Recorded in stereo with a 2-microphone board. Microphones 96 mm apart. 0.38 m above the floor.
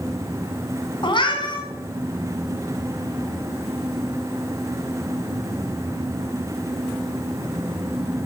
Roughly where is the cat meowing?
Left.